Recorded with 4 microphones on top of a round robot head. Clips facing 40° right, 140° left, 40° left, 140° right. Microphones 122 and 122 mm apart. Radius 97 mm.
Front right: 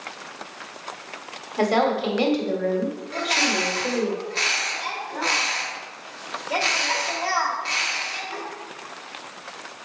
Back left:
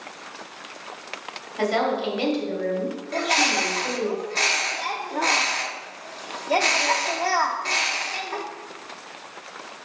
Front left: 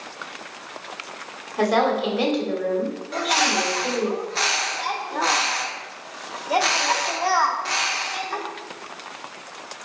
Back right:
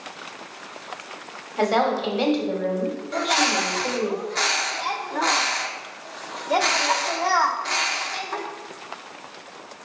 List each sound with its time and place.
1.6 s a woman speaking: 45° right, 2 m
3.1 s a bird: 120° left, 0.9 m